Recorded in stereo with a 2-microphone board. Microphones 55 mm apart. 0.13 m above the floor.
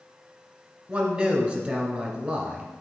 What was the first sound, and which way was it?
A man speaking, 25° right (ahead or behind).